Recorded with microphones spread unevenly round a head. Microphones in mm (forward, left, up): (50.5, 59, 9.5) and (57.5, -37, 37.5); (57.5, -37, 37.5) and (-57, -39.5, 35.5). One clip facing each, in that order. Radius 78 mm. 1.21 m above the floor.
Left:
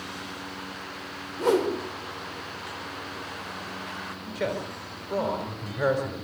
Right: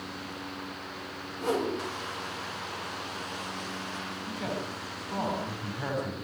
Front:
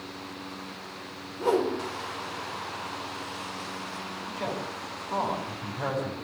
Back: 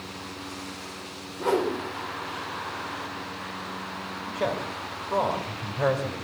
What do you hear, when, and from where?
1.4 s a whoosh: 85° left, 5 m
4.3 s a man speaking: 115° left, 4.5 m